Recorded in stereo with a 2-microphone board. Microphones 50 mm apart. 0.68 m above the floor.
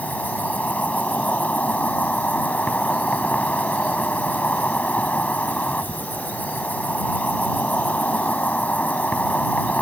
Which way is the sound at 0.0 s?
30° left (ahead or behind).